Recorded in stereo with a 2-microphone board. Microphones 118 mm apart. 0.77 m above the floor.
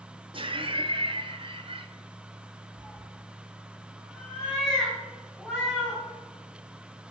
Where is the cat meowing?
5° right (ahead or behind), 3 m.